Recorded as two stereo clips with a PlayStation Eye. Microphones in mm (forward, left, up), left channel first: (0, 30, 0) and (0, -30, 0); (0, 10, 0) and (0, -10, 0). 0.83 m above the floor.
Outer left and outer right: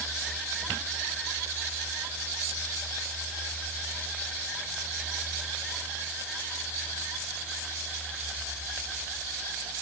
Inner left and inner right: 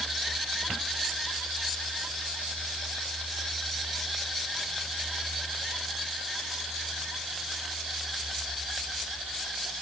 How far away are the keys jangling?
I don't hear keys jangling.